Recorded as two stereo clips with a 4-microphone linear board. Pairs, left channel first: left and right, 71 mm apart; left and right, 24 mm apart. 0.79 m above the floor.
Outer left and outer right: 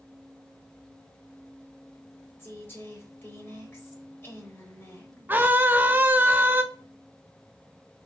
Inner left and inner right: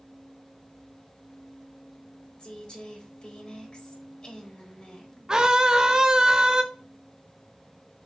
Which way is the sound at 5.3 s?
30° right (ahead or behind).